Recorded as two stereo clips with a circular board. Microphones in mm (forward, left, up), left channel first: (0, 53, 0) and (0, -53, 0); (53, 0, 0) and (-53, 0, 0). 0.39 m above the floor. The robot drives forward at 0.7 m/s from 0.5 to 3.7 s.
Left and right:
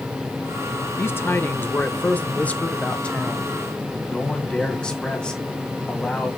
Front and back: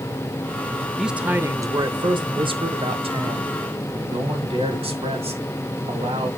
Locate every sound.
1.0 s a man speaking: 95° left, 0.8 m; by 6.3 s 170° left, 2 m